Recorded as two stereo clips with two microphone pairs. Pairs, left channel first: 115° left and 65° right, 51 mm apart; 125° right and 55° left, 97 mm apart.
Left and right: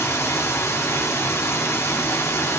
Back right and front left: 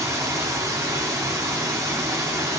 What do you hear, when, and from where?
0.0 s running water: 115° left, 2.5 m